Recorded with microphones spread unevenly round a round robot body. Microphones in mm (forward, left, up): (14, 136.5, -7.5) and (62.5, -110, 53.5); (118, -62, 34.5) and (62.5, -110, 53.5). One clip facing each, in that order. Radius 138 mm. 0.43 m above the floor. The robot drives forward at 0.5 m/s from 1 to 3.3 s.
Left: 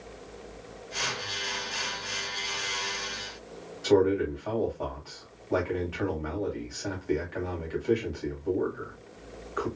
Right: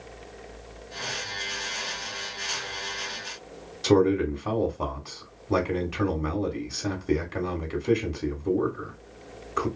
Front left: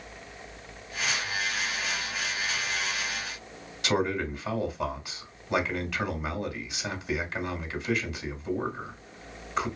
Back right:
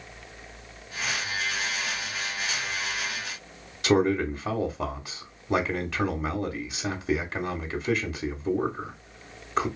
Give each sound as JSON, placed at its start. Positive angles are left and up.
{"t": 3.8, "sound": "a man speaking", "azimuth_deg": -85, "distance_m": 0.9}